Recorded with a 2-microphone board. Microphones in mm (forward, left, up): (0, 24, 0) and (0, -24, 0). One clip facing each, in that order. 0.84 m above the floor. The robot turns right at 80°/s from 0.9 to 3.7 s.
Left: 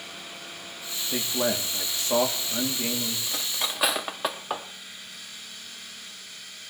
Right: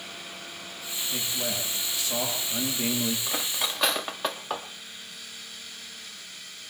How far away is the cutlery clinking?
About 0.8 m.